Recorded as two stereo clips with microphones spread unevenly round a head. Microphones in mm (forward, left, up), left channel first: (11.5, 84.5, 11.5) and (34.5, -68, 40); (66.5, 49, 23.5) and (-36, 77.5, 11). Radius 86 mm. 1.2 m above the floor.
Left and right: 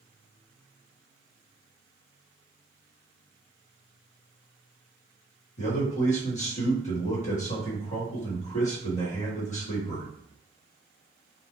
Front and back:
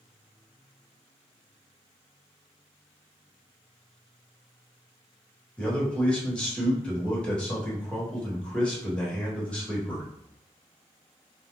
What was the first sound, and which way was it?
A man speaking, 70° left.